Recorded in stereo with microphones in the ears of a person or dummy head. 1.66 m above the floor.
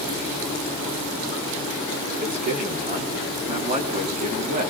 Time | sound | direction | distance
2.2 | a man speaking | 40° right (ahead or behind) | 5.5 m